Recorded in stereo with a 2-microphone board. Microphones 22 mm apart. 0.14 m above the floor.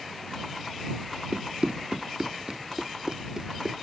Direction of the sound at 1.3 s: 65° right (ahead or behind).